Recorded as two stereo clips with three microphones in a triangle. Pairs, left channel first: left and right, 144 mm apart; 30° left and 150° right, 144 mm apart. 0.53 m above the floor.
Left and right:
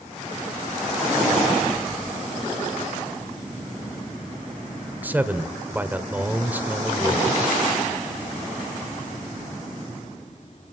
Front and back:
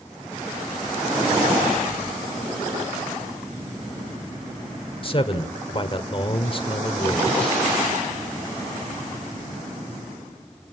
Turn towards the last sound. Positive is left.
turn(degrees=-15)